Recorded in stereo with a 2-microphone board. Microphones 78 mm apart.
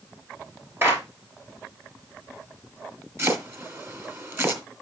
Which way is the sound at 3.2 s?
35° right (ahead or behind).